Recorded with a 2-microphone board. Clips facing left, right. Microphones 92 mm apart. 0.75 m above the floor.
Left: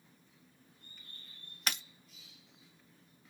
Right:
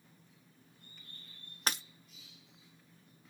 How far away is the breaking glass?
About 1.2 m.